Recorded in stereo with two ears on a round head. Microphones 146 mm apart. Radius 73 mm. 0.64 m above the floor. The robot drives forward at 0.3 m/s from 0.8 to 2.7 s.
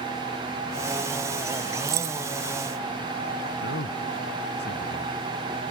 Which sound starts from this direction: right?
Keys jangling, at 1.9 s.